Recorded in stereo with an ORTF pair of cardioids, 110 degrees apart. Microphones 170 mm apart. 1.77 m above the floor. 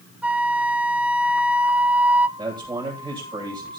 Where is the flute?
5° right, 0.8 m.